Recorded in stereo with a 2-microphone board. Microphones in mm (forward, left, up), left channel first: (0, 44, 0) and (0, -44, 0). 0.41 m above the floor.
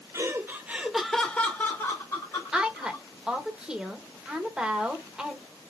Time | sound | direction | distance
0.1 | laughter | 40° right (ahead or behind) | 1.0 m
2.5 | a woman speaking | 10° right (ahead or behind) | 1.3 m